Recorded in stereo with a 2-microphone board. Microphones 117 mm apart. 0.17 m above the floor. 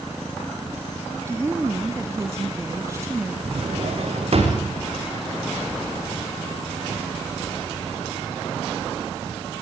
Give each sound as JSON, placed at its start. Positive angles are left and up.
{"t": 1.3, "sound": "a woman speaking", "side_deg": -25, "distance_m": 1.3}
{"t": 3.5, "sound": "a drawer", "side_deg": -60, "distance_m": 8.0}